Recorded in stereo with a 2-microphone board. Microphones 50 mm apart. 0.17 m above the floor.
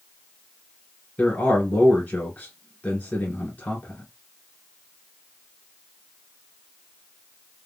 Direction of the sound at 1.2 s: 30° left (ahead or behind).